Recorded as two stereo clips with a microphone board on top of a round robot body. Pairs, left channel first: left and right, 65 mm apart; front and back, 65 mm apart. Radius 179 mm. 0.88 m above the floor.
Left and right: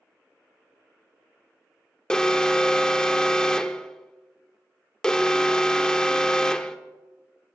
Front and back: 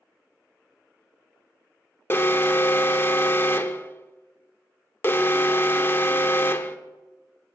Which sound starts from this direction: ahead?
An alarm, at 2.1 s.